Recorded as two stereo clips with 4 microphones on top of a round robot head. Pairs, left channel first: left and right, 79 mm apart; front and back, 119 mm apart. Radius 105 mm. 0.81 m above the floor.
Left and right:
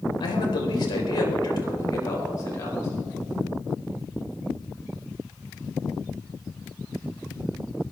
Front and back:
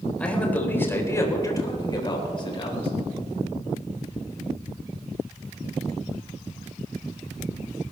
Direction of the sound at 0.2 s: 80° left.